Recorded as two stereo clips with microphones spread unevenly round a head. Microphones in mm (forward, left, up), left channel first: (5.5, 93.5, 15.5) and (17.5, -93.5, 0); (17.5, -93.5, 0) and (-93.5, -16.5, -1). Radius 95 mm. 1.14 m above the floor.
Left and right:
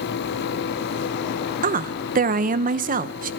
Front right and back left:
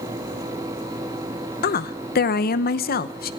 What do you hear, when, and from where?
1.6 s a woman speaking: 40° right, 0.8 m